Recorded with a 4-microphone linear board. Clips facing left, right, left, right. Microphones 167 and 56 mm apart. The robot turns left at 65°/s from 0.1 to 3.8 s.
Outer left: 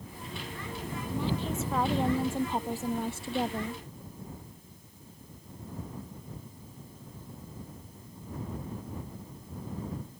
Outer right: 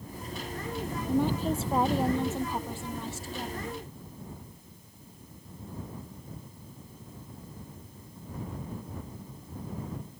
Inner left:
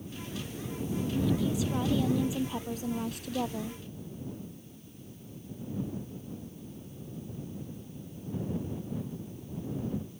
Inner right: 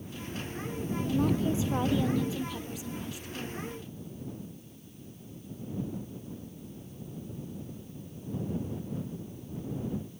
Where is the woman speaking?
110° right; by 3.8 s 70° left.